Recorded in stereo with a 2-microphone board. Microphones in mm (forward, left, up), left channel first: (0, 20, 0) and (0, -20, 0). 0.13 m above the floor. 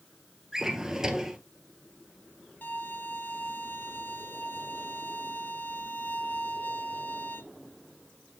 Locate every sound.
0.5 s a drawer: 15° right (ahead or behind), 1.5 m
2.6 s a violin: 55° left (ahead or behind), 0.9 m